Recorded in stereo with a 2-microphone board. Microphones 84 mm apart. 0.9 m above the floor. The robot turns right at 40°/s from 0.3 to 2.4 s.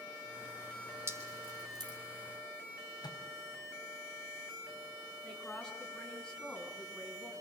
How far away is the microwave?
About 5 m.